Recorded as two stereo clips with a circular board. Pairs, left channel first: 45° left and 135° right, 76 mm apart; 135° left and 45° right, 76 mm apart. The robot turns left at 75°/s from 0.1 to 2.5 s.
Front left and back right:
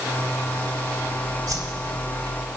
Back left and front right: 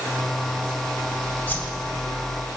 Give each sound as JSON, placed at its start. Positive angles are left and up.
{"t": 1.5, "sound": "a whoosh", "azimuth_deg": -160, "distance_m": 1.8}